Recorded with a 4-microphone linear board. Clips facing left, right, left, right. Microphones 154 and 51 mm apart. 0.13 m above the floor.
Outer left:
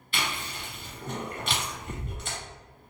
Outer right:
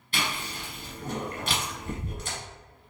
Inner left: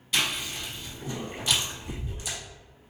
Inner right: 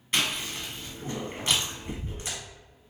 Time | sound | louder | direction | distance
0.1 | chewing | outer right 1 dB, even | 40° right (ahead or behind) | 1.4 m